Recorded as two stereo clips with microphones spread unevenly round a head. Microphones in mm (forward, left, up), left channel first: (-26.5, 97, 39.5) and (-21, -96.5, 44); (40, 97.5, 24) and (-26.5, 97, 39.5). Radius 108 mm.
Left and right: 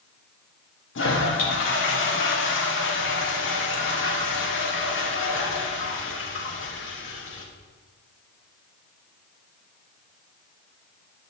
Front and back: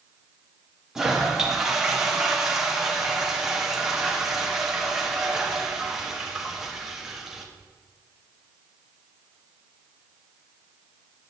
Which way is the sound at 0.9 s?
90° left.